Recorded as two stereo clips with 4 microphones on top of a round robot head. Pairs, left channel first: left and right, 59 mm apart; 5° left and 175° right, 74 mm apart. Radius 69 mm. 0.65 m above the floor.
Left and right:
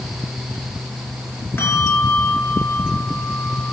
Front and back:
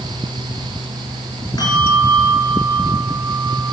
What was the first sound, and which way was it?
A bell, 40° left.